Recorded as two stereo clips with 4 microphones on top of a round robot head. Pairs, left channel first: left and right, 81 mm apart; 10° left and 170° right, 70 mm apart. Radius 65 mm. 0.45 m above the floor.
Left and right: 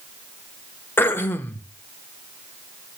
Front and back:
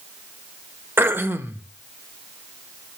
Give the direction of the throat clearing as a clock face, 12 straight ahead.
7 o'clock.